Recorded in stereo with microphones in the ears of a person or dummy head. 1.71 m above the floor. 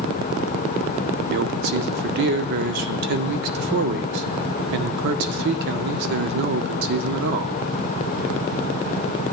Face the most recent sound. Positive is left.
turn(degrees=-55)  # may be behind; listen again after turning